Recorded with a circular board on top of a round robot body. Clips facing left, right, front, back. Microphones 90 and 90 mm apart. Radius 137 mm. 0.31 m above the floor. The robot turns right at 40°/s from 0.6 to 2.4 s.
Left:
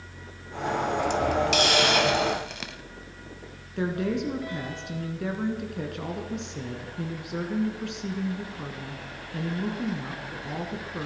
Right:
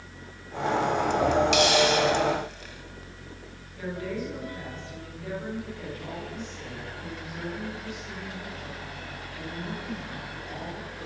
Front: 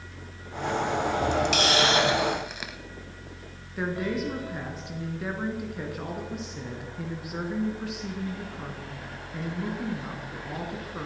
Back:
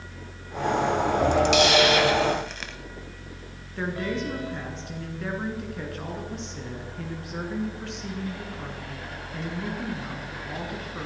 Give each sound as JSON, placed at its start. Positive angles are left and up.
{"t": 1.5, "sound": "a hiss", "azimuth_deg": 45, "distance_m": 1.6}
{"t": 3.8, "sound": "a woman speaking", "azimuth_deg": 85, "distance_m": 5.0}